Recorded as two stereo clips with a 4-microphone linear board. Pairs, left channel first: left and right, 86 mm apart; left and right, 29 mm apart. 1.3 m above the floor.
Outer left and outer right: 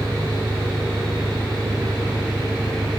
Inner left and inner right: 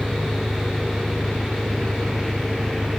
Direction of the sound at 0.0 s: 20° right (ahead or behind).